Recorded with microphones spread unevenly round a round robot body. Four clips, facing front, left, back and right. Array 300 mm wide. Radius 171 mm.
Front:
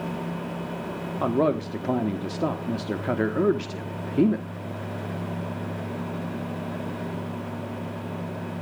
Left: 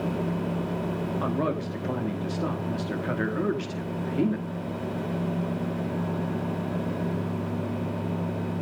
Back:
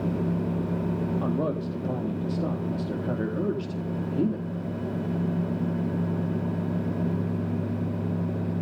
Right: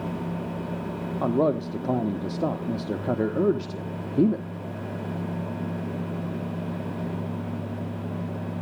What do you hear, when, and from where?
1.2 s a man speaking: 30° right, 1.5 m